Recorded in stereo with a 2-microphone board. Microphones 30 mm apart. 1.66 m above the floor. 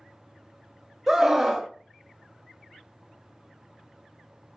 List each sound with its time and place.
1.1 s a scream: 15° right (ahead or behind), 0.5 m